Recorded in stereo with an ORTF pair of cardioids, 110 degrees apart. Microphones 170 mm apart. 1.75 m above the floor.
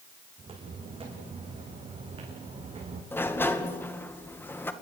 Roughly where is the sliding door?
Ahead.